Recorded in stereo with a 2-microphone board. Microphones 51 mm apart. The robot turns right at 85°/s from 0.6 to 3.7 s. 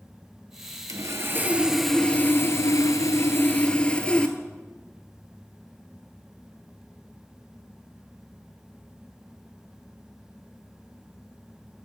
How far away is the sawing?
About 0.6 m.